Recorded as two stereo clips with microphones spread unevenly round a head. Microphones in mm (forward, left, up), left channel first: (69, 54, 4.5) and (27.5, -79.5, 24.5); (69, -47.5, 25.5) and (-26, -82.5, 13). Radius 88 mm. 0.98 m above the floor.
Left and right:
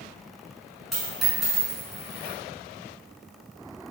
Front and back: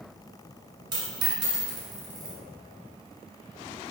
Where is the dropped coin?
175° left, 1.0 m.